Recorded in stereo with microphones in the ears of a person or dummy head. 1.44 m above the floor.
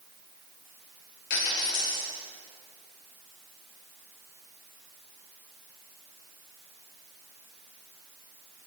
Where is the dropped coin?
55° left (ahead or behind), 1.9 m.